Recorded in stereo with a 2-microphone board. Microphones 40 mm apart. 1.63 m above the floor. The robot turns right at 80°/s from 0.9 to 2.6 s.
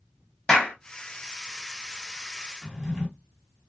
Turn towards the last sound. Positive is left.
turn(degrees=0)  # may be behind; listen again after turning